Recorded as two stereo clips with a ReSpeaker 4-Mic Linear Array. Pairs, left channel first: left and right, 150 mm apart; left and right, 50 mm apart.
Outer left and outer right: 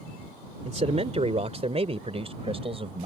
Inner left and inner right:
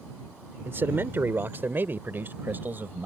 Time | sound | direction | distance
0.7 | a man speaking | 45° right (ahead or behind) | ?